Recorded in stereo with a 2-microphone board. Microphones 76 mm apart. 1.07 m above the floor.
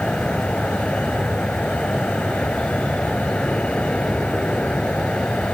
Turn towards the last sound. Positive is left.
turn(degrees=15)  # may be behind; listen again after turning